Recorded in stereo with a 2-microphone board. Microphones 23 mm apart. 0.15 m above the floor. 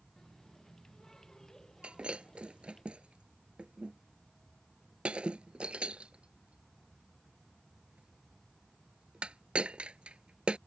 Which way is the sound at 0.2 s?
25° left (ahead or behind).